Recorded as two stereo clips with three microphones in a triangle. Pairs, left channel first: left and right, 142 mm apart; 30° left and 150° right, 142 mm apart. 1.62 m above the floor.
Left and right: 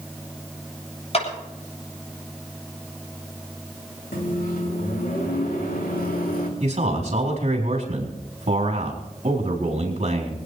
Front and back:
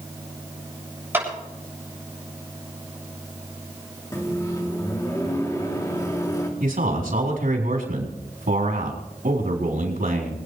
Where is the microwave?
95° left, 2.5 m.